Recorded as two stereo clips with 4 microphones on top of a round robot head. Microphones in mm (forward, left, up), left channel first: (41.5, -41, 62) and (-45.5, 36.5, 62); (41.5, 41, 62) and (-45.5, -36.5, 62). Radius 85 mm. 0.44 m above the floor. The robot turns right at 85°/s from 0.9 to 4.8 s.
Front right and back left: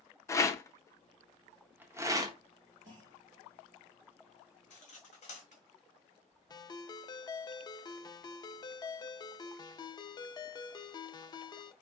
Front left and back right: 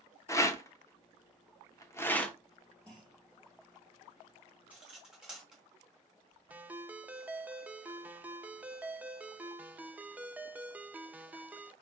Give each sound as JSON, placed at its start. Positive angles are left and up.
{"t": 0.3, "sound": "a rattle", "azimuth_deg": 0, "distance_m": 0.8}
{"t": 2.9, "sound": "a clunk", "azimuth_deg": 120, "distance_m": 3.5}
{"t": 4.7, "sound": "cutlery clinking", "azimuth_deg": -65, "distance_m": 1.8}
{"t": 6.5, "sound": "a ringtone", "azimuth_deg": -70, "distance_m": 0.6}